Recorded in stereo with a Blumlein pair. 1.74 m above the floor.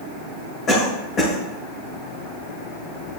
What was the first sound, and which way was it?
A cough, 25° left.